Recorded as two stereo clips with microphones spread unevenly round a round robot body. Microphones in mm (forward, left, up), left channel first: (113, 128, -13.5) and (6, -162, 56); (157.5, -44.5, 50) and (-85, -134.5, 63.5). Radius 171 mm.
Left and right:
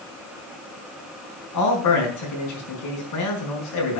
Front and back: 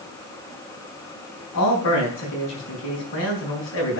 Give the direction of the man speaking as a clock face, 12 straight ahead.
10 o'clock.